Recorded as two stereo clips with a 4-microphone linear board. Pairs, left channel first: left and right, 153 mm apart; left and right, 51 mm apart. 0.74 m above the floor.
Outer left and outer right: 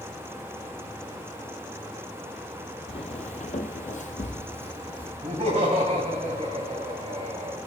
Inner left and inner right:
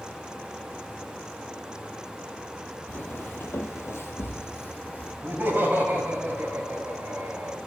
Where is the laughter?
45° right (ahead or behind), 4.5 m.